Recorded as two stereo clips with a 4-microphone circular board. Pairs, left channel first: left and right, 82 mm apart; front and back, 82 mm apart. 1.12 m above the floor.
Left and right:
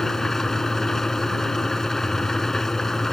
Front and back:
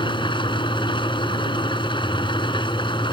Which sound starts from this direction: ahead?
An engine running, at 0.0 s.